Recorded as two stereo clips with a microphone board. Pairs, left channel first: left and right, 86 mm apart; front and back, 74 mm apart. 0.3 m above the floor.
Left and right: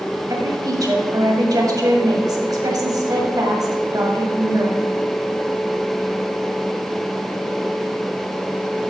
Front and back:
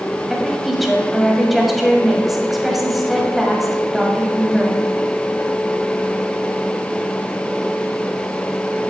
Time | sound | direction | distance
0.3 | a woman speaking | 95° right | 1.7 m